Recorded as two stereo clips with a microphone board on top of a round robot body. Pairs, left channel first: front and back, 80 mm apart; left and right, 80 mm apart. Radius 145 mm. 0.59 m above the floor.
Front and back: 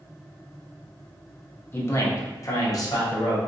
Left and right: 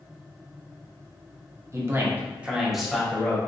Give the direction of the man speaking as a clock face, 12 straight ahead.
2 o'clock.